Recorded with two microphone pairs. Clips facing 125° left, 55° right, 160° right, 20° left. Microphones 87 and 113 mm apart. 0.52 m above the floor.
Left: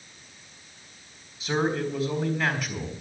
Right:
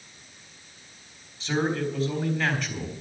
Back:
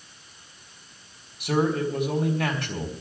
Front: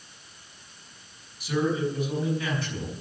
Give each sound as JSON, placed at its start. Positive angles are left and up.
{"t": 1.4, "sound": "a man speaking", "azimuth_deg": -155, "distance_m": 3.5}